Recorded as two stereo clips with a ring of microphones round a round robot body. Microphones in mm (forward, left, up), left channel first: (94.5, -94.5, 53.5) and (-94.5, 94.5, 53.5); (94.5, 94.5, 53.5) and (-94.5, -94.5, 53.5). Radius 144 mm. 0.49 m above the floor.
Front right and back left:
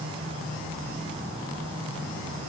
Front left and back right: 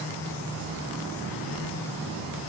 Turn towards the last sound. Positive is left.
No sound to turn to.